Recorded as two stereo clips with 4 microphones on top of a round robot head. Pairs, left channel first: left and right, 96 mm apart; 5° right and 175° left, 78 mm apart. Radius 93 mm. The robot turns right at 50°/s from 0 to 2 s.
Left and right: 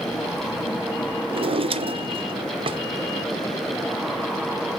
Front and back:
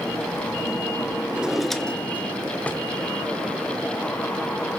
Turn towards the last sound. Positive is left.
turn(degrees=-75)